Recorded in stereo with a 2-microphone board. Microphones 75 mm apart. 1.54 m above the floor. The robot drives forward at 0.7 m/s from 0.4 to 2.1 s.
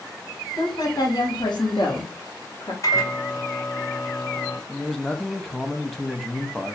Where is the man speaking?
5° left (ahead or behind), 0.6 m.